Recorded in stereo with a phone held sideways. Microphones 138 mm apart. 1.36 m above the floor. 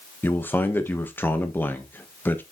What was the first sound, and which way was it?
A man speaking, 15° left (ahead or behind).